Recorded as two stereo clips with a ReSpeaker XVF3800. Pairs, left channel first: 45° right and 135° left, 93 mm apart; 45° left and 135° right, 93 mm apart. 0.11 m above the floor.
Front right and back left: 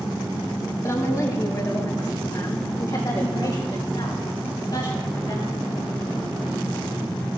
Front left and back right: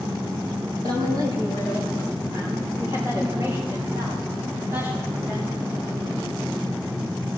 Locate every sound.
0.8 s a woman speaking: 95° right, 4.5 m; by 5.5 s 70° right, 9 m